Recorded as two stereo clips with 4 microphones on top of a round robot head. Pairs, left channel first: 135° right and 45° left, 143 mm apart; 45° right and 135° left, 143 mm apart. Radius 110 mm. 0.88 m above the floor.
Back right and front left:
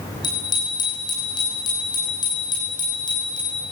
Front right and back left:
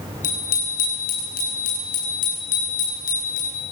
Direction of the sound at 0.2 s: 70° right.